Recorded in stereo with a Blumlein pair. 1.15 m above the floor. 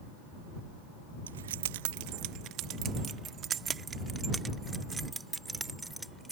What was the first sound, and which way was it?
Keys jangling, 65° right.